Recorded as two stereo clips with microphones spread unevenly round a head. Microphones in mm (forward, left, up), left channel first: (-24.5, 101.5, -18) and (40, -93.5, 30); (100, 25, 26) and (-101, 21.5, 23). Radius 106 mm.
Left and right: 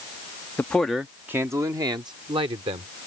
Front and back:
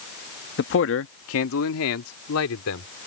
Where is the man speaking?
30° left; by 2.9 s 5° right.